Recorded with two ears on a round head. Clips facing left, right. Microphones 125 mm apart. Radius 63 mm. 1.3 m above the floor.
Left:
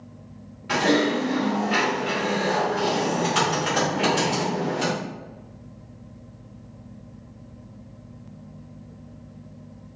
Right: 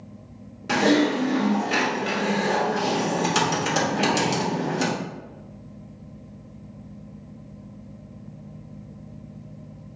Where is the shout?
No shout in this recording.